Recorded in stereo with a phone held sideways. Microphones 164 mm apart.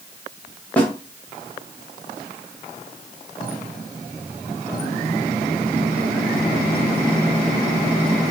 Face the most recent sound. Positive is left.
turn(degrees=10)  # may be behind; listen again after turning